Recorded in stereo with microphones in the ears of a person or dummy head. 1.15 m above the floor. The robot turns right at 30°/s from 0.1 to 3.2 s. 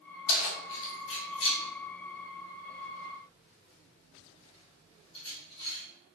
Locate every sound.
0.3 s keys jangling: 60° left (ahead or behind), 0.8 m; by 5.8 s 25° left (ahead or behind), 0.8 m